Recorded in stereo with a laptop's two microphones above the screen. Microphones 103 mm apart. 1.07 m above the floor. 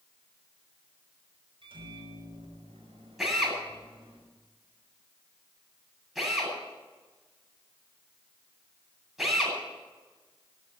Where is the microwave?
65° right (ahead or behind), 5 m.